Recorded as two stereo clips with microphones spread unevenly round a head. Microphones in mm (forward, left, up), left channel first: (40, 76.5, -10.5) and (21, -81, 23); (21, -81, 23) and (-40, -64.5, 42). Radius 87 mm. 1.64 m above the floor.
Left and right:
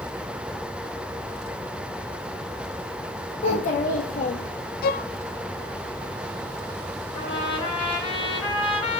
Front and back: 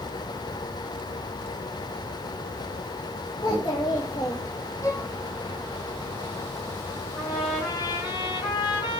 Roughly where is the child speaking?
Ahead left.